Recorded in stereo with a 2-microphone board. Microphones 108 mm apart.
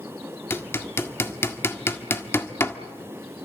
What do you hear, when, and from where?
0.5 s hammering: 20° left (ahead or behind), 1.5 m